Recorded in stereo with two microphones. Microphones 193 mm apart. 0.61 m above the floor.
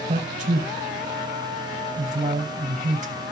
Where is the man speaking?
40° right (ahead or behind), 2.5 m.